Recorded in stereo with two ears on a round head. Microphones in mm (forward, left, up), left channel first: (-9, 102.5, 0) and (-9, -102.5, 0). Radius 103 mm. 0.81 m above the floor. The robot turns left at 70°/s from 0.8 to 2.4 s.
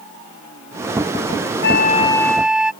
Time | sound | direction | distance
1.6 | a flute | 50° left | ?